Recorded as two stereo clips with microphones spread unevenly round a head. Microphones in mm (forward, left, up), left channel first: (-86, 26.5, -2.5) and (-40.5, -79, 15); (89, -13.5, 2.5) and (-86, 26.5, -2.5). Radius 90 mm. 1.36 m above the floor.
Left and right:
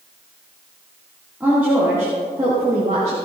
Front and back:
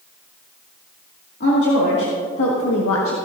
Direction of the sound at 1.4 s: 15° left.